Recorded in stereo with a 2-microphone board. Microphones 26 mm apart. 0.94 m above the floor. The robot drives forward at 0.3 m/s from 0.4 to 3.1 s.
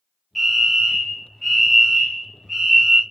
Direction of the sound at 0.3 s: 10° left (ahead or behind).